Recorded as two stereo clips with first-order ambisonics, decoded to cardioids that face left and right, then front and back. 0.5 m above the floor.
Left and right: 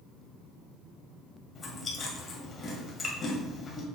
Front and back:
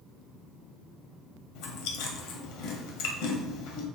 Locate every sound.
1.6 s chewing: 15° left, 1.5 m